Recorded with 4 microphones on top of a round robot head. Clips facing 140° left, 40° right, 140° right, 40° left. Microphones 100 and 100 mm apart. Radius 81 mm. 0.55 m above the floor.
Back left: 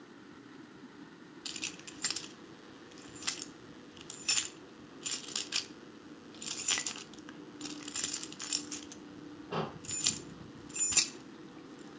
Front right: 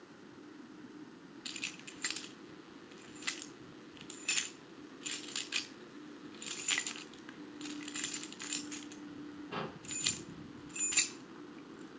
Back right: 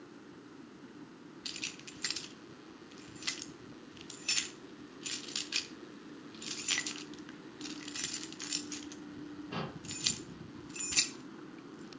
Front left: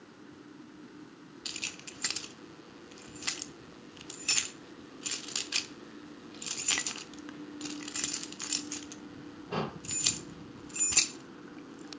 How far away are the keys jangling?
About 0.9 m.